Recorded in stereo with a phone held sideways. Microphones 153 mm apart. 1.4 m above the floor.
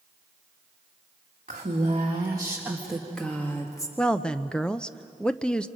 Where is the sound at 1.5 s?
55° right (ahead or behind), 2.0 m; by 3.9 s 25° left (ahead or behind), 2.5 m.